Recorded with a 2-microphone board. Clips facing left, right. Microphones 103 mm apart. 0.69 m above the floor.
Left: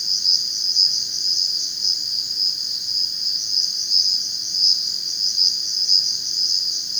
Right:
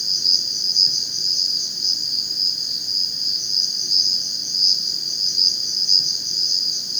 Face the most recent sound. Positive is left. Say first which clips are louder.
# right 2 dB
turn(degrees=-50)  # may be behind; listen again after turning